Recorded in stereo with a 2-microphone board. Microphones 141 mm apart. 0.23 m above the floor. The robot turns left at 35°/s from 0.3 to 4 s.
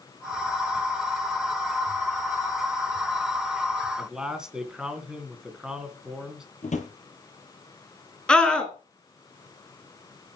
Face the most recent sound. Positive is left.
turn(degrees=5)  # may be behind; listen again after turning